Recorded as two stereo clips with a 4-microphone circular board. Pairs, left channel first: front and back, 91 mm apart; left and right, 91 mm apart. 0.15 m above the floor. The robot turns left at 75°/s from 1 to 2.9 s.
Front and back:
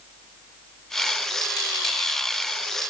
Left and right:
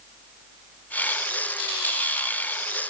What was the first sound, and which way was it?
Only background noise.